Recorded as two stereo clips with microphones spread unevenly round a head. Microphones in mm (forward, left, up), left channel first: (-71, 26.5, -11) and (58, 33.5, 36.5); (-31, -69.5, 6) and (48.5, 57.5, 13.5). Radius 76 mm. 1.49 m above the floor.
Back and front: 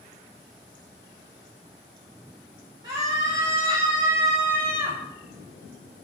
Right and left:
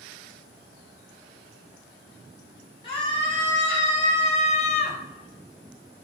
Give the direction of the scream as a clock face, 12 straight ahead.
2 o'clock.